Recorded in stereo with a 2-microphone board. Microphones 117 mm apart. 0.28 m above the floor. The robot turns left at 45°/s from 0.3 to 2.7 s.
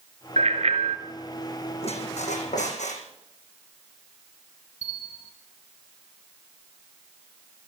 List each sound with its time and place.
0.4 s a bicycle bell: 75° right (ahead or behind), 2.5 m; by 1.0 s 55° right (ahead or behind), 2.5 m
1.8 s a squeak: 120° left, 5.5 m; by 3.0 s 85° left, 5.5 m
4.8 s a bell: 75° left (ahead or behind), 1.1 m